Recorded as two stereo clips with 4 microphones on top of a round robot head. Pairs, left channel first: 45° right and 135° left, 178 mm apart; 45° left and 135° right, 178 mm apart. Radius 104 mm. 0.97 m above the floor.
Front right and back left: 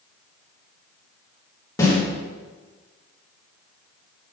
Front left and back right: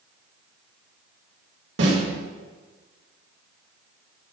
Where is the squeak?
I don't hear a squeak.